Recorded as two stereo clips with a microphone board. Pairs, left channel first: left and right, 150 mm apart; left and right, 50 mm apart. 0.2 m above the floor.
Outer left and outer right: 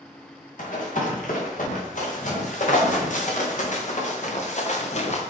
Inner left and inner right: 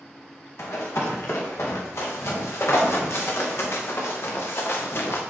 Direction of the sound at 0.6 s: 60° left (ahead or behind).